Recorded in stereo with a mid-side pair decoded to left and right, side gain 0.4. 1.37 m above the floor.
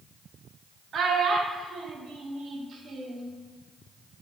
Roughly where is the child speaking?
Ahead right.